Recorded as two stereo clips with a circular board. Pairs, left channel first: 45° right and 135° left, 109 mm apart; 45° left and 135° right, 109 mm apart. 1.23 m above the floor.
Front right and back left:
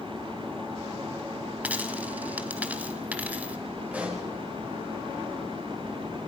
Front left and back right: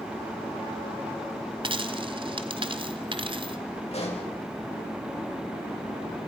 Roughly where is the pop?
Ahead left.